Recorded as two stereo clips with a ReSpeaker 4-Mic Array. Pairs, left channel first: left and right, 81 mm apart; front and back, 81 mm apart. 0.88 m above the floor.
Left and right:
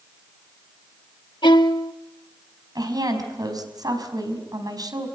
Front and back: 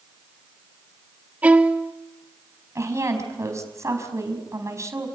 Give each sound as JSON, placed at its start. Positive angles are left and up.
{"t": 1.4, "sound": "a violin", "azimuth_deg": 110, "distance_m": 1.1}
{"t": 2.8, "sound": "a woman speaking", "azimuth_deg": -125, "distance_m": 5.0}